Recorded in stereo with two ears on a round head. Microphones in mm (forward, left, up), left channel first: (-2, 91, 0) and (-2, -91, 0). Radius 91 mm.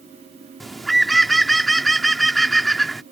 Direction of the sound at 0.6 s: Centre (ahead or behind).